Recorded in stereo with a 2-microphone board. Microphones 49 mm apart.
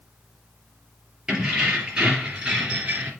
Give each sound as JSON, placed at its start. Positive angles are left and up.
{"t": 1.3, "sound": "keys jangling", "side_deg": -15, "distance_m": 3.0}